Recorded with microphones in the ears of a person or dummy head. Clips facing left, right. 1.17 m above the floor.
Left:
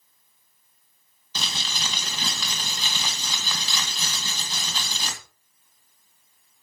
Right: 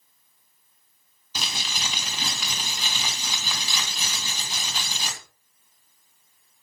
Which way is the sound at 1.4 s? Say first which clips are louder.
Even; 10° right (ahead or behind).